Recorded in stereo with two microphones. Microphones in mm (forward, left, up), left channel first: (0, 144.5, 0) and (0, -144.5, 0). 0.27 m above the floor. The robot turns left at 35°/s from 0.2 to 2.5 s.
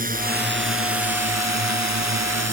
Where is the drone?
30° right; by 2.5 s 115° right.